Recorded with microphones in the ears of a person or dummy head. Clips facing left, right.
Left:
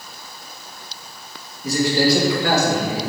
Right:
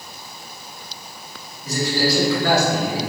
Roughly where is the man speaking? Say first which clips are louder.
Left 4 dB; left.